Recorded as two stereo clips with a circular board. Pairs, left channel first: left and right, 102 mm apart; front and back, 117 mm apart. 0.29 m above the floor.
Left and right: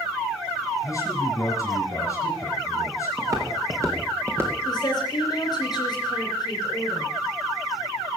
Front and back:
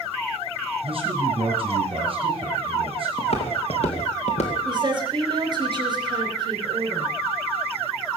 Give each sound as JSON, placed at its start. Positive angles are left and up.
{"t": 0.8, "sound": "a man speaking", "azimuth_deg": 145, "distance_m": 4.0}
{"t": 3.2, "sound": "footsteps", "azimuth_deg": -35, "distance_m": 3.5}
{"t": 4.7, "sound": "a woman speaking", "azimuth_deg": 130, "distance_m": 3.5}